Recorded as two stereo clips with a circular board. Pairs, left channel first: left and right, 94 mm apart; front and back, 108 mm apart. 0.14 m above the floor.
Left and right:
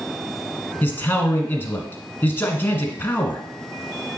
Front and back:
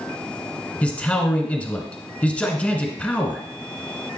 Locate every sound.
0.8 s a man speaking: 60° left, 1.1 m